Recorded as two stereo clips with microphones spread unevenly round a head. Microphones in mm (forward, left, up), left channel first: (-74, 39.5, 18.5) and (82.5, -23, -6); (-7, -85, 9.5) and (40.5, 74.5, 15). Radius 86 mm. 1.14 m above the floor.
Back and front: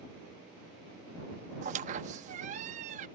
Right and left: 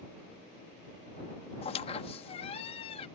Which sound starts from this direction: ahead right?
A squeak, at 1.6 s.